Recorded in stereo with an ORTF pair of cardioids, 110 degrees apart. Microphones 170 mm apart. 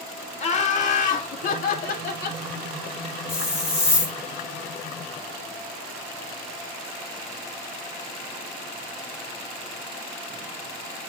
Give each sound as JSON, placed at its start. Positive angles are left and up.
{"t": 0.4, "sound": "laughter", "azimuth_deg": 40, "distance_m": 2.5}
{"t": 3.3, "sound": "a hiss", "azimuth_deg": 15, "distance_m": 4.0}